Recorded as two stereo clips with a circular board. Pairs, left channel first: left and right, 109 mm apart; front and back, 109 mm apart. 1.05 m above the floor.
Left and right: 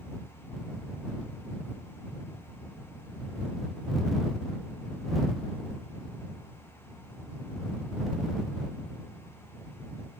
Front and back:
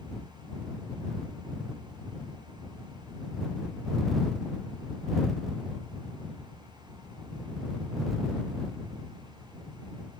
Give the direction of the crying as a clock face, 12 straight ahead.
I don't hear crying.